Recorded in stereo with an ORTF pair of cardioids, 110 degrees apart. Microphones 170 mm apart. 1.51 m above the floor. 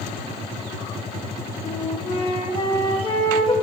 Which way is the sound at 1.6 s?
30° left.